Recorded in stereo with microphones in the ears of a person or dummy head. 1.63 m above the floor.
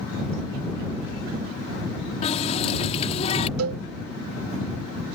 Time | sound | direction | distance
2.2 | a running tap | 35° left (ahead or behind) | ?
3.6 | a cowbell | 85° right | ?